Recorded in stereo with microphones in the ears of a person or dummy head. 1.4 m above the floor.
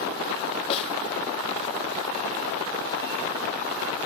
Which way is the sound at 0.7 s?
30° left (ahead or behind).